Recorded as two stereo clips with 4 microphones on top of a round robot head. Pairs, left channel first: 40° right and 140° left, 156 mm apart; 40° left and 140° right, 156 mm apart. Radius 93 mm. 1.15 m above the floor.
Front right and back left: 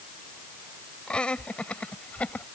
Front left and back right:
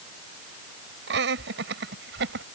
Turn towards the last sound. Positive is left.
turn(degrees=-125)